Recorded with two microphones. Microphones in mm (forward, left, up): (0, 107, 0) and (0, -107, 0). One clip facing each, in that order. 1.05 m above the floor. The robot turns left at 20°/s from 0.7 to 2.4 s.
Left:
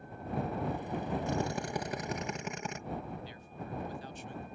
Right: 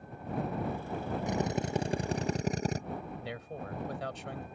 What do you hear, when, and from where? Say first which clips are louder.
1.3 s a drill: right 2 dB; 15° right (ahead or behind); by 2.8 s 35° right (ahead or behind)
3.2 s a man speaking: right 4 dB; 85° right